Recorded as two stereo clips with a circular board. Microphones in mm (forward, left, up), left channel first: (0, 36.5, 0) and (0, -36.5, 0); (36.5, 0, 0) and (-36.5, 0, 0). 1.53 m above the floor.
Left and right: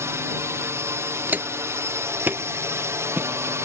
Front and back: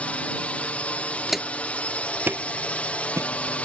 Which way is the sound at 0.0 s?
65° right.